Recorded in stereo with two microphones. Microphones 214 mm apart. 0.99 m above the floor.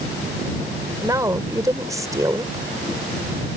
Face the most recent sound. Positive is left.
turn(degrees=-15)  # may be behind; listen again after turning